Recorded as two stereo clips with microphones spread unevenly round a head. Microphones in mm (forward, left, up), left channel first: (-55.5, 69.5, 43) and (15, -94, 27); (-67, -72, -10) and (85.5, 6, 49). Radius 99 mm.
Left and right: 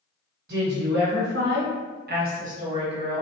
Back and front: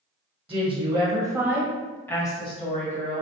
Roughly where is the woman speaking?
Ahead right.